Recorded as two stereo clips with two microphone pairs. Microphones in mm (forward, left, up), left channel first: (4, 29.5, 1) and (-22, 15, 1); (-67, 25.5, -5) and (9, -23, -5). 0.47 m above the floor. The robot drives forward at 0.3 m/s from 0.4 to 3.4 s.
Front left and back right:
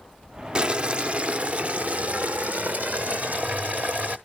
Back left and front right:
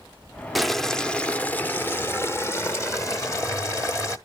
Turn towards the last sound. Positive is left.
turn(degrees=-165)